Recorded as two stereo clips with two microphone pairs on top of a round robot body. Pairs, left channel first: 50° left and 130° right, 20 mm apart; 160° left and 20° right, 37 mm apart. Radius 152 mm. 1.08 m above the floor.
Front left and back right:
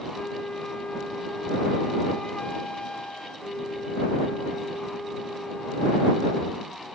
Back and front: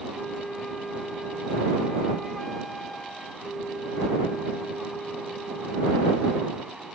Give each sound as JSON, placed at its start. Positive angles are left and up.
{"t": 0.1, "sound": "a flute", "azimuth_deg": 80}